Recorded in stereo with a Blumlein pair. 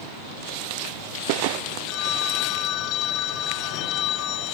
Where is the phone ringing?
35° left.